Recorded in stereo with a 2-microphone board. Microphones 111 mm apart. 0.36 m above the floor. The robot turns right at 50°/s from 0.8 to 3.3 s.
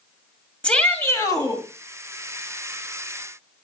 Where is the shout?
10° left, 2.5 m; by 1.6 s 50° left, 2.5 m.